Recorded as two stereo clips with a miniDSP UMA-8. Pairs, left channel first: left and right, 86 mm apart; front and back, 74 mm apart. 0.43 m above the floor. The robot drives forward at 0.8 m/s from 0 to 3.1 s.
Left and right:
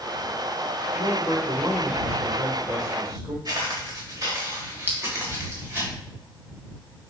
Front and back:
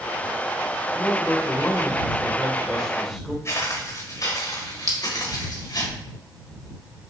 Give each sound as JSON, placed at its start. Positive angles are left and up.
{"t": 0.9, "sound": "a man speaking", "azimuth_deg": -35, "distance_m": 2.0}
{"t": 3.5, "sound": "footsteps", "azimuth_deg": -45, "distance_m": 2.5}
{"t": 4.9, "sound": "a clink", "azimuth_deg": -150, "distance_m": 1.6}